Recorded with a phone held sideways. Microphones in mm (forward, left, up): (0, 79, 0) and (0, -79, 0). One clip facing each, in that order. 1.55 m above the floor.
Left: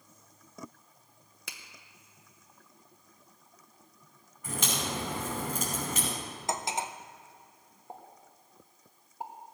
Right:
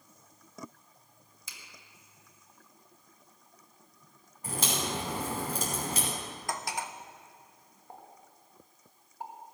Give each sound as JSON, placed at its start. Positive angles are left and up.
{"t": 1.5, "sound": "a finger snap", "side_deg": 65, "distance_m": 1.2}
{"t": 4.4, "sound": "a crack", "side_deg": -35, "distance_m": 5.5}
{"t": 6.5, "sound": "cutlery clinking", "side_deg": 20, "distance_m": 0.6}
{"t": 7.9, "sound": "a pop", "side_deg": 20, "distance_m": 1.9}